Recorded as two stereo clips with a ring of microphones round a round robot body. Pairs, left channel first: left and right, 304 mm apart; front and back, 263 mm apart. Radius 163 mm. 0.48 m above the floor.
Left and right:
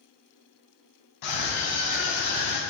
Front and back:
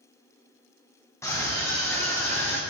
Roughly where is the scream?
Left.